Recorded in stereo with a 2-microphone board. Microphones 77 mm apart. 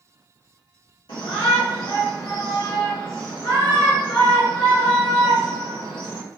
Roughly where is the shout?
Left.